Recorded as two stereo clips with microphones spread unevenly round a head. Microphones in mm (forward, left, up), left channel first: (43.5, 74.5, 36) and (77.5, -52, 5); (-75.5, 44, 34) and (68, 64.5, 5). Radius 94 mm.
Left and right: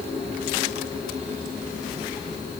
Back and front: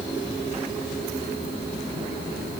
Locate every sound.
Only background noise.